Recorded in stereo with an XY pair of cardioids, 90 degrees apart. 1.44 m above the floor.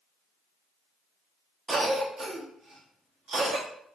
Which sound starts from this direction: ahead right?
A cough, at 1.7 s.